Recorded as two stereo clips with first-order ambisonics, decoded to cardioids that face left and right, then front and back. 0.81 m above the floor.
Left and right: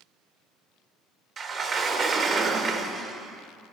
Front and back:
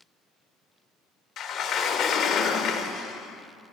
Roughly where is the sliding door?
Ahead right.